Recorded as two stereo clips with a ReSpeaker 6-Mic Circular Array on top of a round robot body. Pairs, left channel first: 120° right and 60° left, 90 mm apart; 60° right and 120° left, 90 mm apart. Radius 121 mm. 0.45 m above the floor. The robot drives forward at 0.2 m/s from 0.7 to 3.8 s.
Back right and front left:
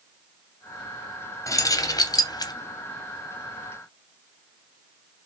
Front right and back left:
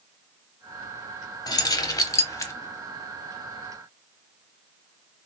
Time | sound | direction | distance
1.5 | keys jangling | 80° right | 0.7 m